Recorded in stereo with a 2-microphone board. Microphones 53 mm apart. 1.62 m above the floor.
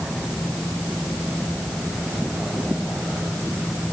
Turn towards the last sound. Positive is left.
No sound to turn to.